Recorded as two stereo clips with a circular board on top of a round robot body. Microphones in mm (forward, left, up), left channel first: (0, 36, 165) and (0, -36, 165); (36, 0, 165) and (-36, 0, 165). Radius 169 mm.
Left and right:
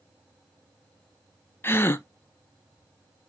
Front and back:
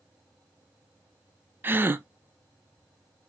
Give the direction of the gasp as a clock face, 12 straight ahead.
8 o'clock.